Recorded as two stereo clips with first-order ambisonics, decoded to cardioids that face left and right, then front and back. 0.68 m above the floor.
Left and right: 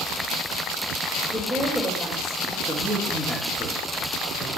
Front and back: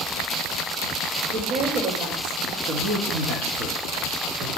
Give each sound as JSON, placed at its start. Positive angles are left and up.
{"t": 1.3, "sound": "a woman speaking", "azimuth_deg": 180, "distance_m": 2.5}
{"t": 2.6, "sound": "a man speaking", "azimuth_deg": 180, "distance_m": 1.8}